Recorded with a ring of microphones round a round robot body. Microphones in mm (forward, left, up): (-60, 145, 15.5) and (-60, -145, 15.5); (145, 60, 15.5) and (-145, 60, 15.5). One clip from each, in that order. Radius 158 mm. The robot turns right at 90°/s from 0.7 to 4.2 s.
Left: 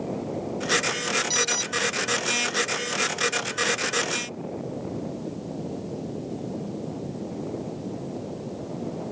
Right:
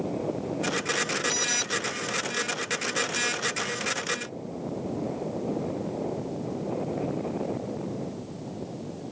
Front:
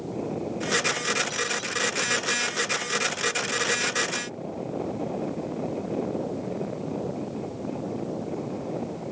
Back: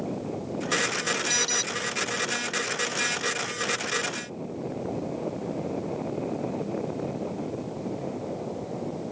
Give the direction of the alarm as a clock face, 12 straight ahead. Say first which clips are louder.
Left 2 dB, back 3 dB; 7 o'clock.